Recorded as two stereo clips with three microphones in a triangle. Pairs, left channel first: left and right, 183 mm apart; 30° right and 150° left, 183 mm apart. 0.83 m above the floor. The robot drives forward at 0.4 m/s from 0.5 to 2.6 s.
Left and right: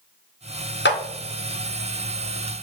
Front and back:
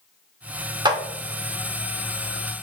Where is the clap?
85° left, 0.6 m; by 1.0 s 90° left, 0.6 m.